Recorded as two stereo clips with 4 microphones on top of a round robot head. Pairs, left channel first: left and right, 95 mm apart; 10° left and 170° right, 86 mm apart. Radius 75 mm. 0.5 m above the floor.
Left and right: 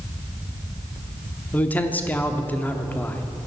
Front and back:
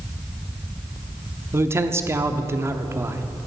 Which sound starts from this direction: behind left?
A man speaking, at 1.5 s.